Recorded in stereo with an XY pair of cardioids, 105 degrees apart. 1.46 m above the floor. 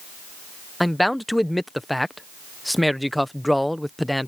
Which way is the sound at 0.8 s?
5° left.